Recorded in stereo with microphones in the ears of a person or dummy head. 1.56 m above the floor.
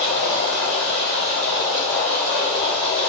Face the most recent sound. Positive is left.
turn(degrees=5)  # may be behind; listen again after turning